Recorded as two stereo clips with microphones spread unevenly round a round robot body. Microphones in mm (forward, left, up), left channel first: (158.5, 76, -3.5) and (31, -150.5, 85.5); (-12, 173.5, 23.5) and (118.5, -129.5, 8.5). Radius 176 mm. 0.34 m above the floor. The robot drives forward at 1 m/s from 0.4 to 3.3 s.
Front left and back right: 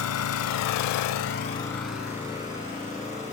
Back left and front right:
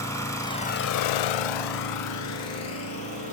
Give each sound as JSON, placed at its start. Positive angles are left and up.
{"t": 0.0, "sound": "an engine running", "azimuth_deg": 30, "distance_m": 0.8}